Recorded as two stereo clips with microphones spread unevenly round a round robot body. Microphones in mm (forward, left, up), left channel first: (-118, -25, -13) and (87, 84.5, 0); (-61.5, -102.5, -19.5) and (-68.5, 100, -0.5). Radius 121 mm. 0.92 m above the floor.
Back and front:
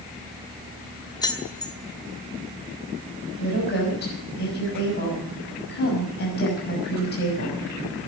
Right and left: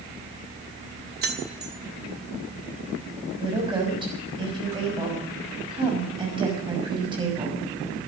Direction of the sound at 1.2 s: 135° left.